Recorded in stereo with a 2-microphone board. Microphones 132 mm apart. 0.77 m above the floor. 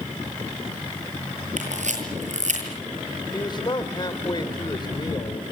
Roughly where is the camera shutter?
Right.